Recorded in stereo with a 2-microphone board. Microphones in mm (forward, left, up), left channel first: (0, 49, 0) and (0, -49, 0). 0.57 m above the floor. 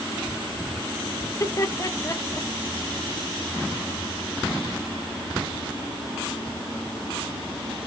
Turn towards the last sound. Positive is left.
turn(degrees=30)  # may be behind; listen again after turning